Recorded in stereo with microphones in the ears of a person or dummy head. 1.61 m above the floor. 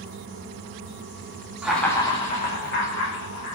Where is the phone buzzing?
No phone buzzing in this recording.